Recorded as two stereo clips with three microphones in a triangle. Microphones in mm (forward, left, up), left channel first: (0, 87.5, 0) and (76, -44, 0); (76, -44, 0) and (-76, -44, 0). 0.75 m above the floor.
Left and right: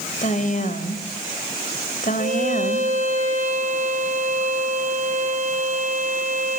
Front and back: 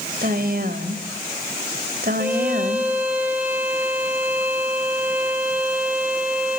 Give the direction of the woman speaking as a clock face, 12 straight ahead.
7 o'clock.